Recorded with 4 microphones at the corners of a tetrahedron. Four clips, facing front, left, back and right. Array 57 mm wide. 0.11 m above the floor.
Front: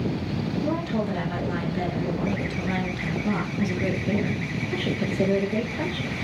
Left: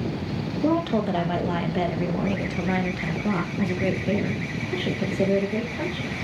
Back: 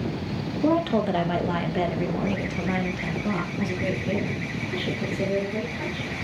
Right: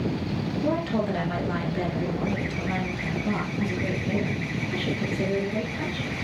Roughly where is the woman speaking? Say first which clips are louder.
Left 4 dB, back 8 dB; behind left.